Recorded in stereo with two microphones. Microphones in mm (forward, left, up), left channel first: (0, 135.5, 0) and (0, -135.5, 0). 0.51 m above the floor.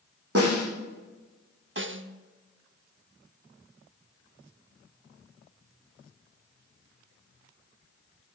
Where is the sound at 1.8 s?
45° right (ahead or behind), 0.8 m.